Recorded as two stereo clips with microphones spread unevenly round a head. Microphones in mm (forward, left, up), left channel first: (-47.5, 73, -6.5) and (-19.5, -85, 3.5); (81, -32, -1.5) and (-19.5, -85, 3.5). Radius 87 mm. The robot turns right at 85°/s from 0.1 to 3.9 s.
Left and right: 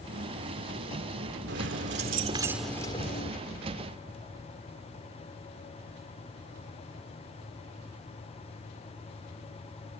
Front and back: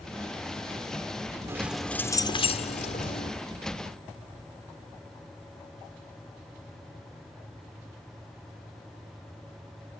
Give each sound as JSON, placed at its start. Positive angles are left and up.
{"t": 1.5, "sound": "keys jangling", "azimuth_deg": -90}